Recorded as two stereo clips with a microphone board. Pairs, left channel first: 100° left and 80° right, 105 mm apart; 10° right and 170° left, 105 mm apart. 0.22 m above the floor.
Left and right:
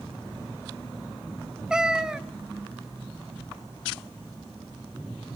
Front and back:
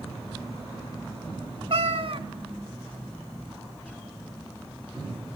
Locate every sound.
1.7 s a cat meowing: 160° right, 0.9 m